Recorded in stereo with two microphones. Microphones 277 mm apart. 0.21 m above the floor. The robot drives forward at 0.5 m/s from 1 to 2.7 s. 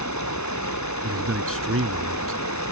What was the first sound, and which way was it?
Running water, 85° left.